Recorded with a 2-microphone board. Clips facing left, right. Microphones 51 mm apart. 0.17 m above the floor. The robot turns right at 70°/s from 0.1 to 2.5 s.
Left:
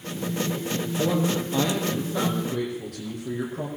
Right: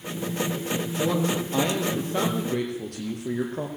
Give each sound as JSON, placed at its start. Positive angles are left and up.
{"t": 1.0, "sound": "a man speaking", "azimuth_deg": 170, "distance_m": 5.0}